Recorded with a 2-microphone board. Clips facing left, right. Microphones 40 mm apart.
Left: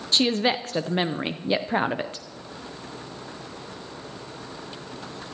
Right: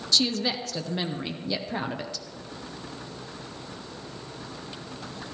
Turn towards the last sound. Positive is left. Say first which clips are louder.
# left 4 dB
turn(degrees=40)  # may be behind; listen again after turning